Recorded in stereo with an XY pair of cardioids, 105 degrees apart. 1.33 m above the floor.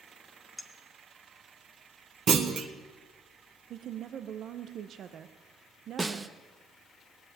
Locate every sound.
0.6 s a clink: 10° left, 2 m
2.3 s a clunk: 50° right, 1.1 m
3.7 s a woman speaking: 65° right, 0.7 m
6.0 s a snare drum: 25° right, 0.8 m